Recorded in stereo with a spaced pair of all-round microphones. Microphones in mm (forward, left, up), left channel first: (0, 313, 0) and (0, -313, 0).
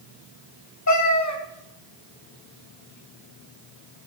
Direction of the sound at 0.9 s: 30° left (ahead or behind).